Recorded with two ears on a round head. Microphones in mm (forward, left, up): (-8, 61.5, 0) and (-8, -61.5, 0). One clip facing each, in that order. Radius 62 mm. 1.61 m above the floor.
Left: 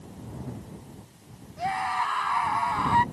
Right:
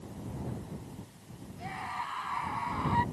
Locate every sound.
1.6 s a scream: 75° left (ahead or behind); by 3.0 s 70° left (ahead or behind)